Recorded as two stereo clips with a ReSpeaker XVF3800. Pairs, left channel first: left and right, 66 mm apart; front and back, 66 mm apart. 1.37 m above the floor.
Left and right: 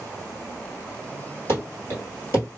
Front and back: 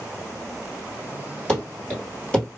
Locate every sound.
1.5 s running footsteps: 70° left, 1.7 m